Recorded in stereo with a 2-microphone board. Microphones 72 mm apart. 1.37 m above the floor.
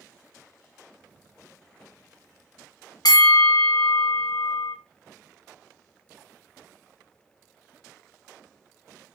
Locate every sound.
3.0 s a bell: 70° left (ahead or behind), 0.7 m